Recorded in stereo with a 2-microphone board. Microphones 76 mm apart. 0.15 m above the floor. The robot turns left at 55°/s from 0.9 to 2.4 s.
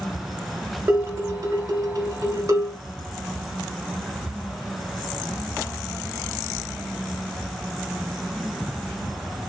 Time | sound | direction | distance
0.9 | dishes clattering | 35° right | 1.3 m